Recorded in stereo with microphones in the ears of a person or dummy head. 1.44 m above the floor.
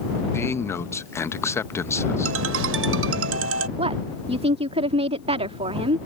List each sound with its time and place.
0.3 s a man speaking: 15° left (ahead or behind)
2.2 s a ringtone: 85° right
3.8 s a woman speaking: 35° right (ahead or behind)